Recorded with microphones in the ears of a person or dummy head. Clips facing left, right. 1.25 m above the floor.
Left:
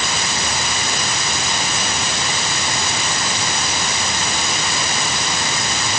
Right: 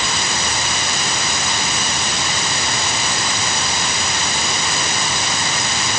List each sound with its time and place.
Only background noise.